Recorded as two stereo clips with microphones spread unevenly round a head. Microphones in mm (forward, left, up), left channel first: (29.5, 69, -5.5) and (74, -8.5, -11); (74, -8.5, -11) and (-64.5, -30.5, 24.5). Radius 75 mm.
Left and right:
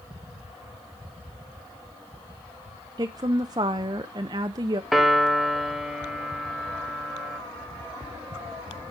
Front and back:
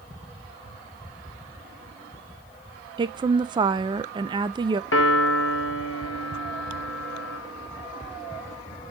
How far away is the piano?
About 1.2 m.